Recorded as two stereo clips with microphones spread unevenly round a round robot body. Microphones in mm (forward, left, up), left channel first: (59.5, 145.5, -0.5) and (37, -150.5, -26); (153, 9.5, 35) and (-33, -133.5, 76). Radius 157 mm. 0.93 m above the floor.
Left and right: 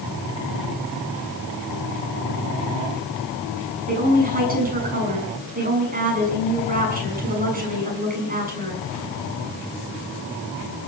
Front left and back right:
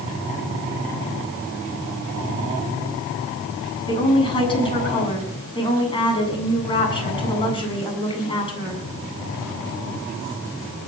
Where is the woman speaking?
30° right, 8 m.